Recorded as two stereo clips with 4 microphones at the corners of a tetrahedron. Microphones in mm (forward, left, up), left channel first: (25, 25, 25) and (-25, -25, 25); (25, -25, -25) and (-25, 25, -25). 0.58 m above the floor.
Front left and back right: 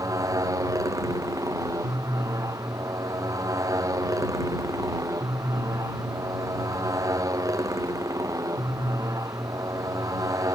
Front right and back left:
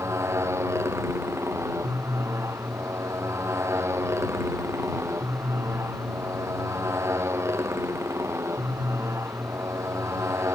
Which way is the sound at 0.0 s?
175° right.